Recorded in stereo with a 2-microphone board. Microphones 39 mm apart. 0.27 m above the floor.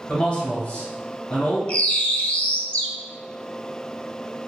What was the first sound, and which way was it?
A man speaking, 30° left (ahead or behind).